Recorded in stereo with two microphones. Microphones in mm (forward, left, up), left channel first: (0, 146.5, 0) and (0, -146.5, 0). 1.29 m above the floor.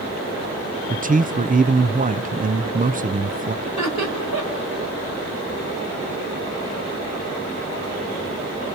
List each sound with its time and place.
0.9 s a man speaking: 30° right (ahead or behind), 0.5 m
3.6 s laughter: 75° right (ahead or behind), 4.5 m